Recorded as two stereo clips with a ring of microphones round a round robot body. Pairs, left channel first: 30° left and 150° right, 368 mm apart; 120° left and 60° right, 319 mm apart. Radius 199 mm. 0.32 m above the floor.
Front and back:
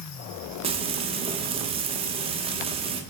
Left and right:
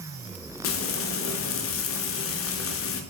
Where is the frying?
140° left, 0.5 m.